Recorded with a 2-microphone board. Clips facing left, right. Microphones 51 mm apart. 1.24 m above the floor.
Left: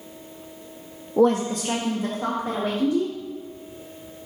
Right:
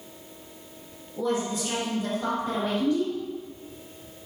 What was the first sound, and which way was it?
A woman speaking, 70° left (ahead or behind).